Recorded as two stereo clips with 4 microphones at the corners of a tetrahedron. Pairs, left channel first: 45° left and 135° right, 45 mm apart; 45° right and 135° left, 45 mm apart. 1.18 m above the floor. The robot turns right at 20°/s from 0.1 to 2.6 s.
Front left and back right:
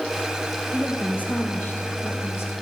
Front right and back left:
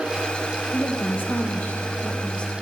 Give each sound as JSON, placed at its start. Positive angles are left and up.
{"t": 0.7, "sound": "a woman speaking", "azimuth_deg": -15, "distance_m": 1.4}